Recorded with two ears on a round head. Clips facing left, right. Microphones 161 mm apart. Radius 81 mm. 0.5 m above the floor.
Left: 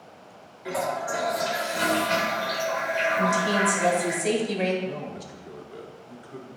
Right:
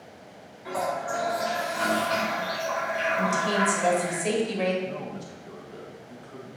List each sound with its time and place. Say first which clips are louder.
0.7 s a toilet flushing: left 1 dB; 30° left (ahead or behind), 1.3 m
3.2 s a woman speaking: left 1 dB; 5° left (ahead or behind), 1.7 m
4.8 s a man speaking: left 1 dB; 20° left (ahead or behind), 1.0 m